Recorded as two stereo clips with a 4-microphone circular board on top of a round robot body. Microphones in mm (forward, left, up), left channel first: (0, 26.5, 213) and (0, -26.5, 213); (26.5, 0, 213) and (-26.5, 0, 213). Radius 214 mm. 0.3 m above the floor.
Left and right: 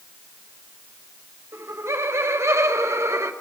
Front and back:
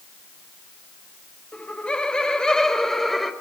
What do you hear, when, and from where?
1.5 s laughter: 65° right, 2.5 m; by 3.3 s 85° right, 2 m